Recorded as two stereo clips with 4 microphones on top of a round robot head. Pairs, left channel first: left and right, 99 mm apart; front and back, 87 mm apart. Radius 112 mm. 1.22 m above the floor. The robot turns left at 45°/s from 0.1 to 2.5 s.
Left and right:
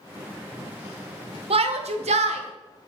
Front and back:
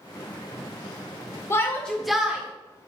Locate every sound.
1.5 s a shout: 65° right, 0.8 m; by 2.4 s 105° right, 0.8 m